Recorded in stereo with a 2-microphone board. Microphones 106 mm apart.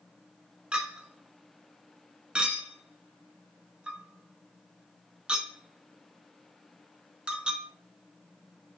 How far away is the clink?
About 0.7 m.